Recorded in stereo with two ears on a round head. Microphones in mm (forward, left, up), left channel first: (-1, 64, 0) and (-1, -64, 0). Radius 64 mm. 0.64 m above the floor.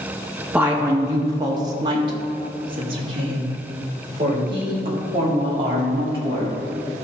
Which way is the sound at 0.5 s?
10° right (ahead or behind).